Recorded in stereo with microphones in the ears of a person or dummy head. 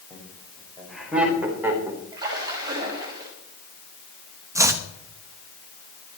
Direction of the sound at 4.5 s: 15° right (ahead or behind).